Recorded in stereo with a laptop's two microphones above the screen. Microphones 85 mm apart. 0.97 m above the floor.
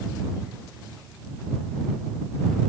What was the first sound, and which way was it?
Only background noise.